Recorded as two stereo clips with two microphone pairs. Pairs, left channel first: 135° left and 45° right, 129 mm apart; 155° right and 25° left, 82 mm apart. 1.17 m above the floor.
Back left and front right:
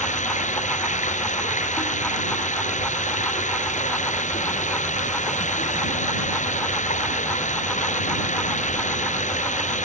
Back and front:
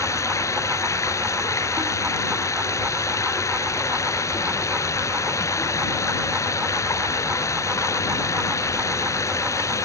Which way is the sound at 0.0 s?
155° left.